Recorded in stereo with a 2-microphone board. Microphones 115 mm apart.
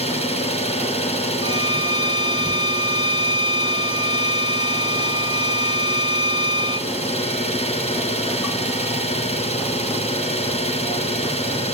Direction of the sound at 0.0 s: 55° left (ahead or behind).